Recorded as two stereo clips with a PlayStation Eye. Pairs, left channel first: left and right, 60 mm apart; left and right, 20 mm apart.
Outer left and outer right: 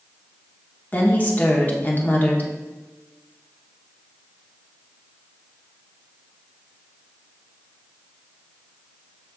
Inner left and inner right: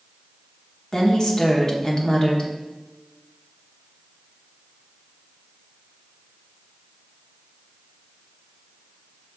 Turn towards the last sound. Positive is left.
turn(degrees=30)  # may be behind; listen again after turning